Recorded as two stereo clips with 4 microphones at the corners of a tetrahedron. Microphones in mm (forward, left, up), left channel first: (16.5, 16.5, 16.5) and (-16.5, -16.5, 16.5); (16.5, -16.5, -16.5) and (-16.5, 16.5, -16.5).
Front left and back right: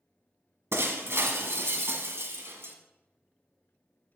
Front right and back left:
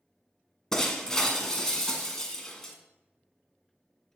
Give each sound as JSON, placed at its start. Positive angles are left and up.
{"t": 0.7, "sound": "breaking glass", "azimuth_deg": -120, "distance_m": 1.3}